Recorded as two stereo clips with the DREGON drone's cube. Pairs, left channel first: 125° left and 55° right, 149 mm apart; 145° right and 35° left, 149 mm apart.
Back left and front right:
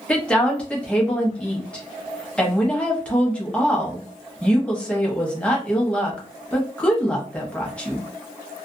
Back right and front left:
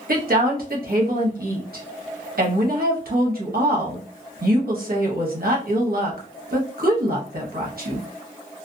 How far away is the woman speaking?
About 1.0 m.